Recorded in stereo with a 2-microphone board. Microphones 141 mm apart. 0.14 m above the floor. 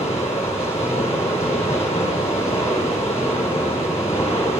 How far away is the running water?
About 1.8 m.